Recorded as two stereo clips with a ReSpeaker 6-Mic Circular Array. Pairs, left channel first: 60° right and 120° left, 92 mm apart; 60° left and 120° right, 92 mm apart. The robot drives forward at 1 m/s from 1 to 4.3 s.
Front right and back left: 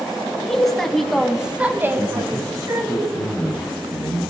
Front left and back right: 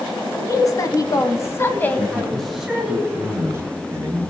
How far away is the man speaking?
About 1.3 m.